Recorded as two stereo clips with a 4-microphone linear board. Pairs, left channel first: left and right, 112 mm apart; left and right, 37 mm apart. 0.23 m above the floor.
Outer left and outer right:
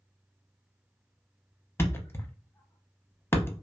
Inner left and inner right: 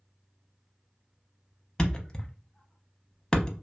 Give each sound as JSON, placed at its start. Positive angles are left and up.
{"t": 1.8, "sound": "a thud", "side_deg": 20, "distance_m": 0.7}